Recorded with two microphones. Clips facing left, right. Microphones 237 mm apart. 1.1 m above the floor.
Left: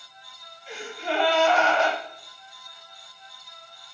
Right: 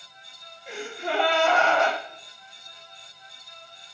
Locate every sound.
0.7 s a gasp: 60° right (ahead or behind), 0.8 m